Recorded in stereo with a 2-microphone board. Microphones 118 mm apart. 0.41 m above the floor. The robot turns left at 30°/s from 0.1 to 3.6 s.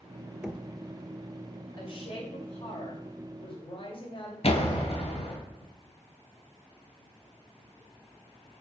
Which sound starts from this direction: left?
A door slam, at 4.4 s.